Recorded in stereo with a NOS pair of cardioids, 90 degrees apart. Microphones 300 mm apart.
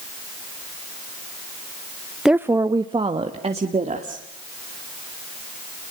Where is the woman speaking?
Straight ahead, 0.6 m; by 4.2 s 20° right, 2.5 m.